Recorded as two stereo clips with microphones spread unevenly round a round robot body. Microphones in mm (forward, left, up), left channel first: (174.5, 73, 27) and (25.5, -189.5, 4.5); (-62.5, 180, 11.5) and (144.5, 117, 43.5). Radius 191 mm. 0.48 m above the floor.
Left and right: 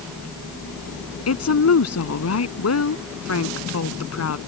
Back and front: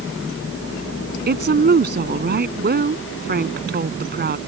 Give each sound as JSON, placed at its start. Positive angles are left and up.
{"t": 1.3, "sound": "a woman speaking", "azimuth_deg": 25}